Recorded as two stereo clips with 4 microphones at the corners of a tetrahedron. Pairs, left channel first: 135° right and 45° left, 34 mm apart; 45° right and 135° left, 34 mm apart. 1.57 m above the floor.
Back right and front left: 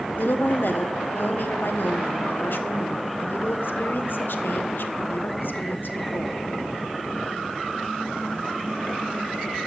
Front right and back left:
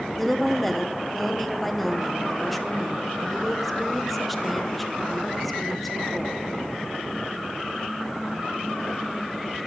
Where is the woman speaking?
130° right, 0.9 m.